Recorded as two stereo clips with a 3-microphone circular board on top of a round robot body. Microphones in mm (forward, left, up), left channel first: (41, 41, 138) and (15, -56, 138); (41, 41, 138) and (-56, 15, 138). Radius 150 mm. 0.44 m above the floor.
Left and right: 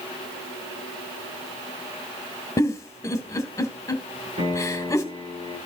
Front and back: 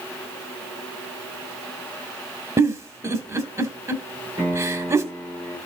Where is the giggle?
135° left, 1.7 m.